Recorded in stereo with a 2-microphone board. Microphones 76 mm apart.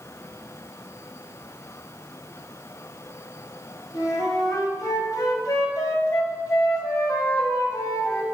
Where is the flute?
50° left (ahead or behind), 1.0 m.